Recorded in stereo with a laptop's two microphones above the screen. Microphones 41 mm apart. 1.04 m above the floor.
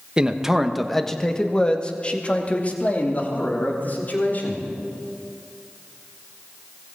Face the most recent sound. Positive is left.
turn(degrees=45)  # may be behind; listen again after turning